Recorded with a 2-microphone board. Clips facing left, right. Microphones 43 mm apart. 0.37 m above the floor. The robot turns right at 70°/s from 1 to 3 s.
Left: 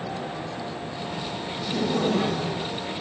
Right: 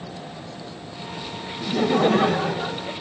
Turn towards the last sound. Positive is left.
turn(degrees=-55)